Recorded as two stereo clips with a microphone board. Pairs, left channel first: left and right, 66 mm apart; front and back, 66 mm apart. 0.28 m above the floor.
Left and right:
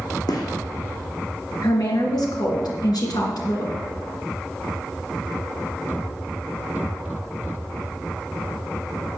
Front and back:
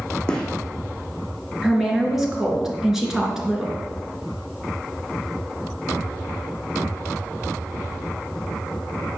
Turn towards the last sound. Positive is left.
turn(degrees=95)